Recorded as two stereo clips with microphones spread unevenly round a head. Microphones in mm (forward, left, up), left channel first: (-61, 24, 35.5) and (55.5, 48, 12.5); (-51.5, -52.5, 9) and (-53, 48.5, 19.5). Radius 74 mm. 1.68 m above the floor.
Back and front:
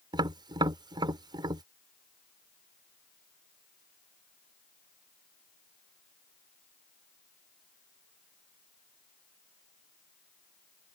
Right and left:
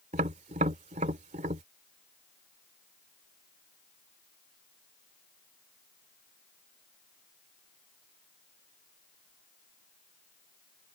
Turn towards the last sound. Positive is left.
turn(degrees=70)